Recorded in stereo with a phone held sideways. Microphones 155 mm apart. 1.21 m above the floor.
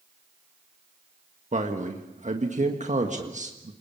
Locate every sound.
1.5 s a man speaking: 50° right (ahead or behind), 1.7 m